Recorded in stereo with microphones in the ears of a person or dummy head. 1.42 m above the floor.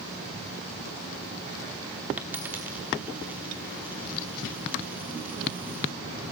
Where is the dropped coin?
10° right (ahead or behind), 1.1 m.